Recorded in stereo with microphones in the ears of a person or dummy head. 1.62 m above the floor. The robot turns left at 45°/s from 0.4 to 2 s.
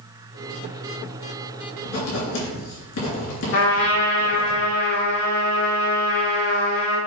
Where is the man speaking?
No man speaking in this recording.